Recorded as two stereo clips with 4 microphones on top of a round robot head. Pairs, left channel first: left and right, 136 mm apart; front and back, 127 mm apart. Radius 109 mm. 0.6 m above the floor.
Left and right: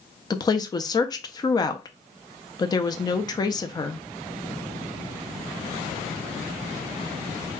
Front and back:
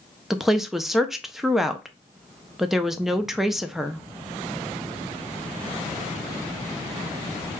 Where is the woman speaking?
95° left, 0.6 m.